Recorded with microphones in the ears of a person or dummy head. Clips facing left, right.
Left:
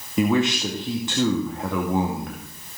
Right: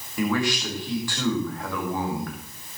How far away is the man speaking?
About 2.5 m.